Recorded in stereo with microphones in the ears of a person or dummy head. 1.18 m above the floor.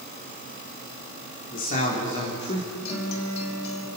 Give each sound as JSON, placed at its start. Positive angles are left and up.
{"t": 1.5, "sound": "a man speaking", "side_deg": 45, "distance_m": 3.5}
{"t": 2.9, "sound": "a guitar", "side_deg": 35, "distance_m": 4.0}